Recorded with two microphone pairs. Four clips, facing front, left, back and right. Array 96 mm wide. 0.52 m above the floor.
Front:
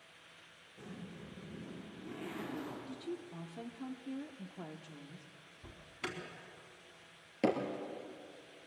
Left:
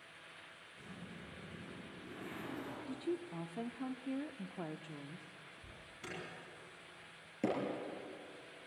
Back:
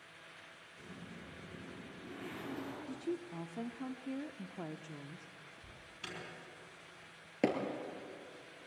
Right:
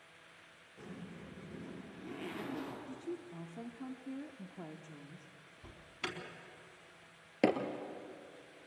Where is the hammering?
105° right, 3 m.